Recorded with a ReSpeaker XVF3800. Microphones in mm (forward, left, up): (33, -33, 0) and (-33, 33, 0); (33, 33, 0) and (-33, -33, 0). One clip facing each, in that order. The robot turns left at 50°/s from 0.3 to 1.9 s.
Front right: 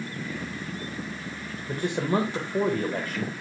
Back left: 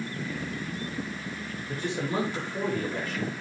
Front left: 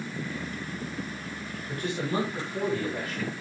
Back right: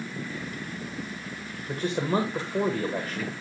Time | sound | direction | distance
1.7 | a man speaking | 70° right | 1.7 m